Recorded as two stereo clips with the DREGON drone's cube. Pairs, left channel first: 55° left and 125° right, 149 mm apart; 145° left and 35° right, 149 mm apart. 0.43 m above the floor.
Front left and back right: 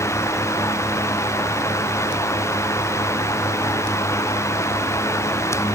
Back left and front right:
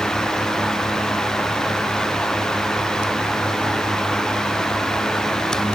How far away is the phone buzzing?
I don't hear a phone buzzing.